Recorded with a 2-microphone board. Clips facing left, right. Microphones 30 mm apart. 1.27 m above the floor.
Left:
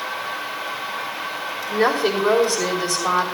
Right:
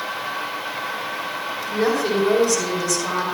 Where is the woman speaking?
40° left (ahead or behind), 3 m.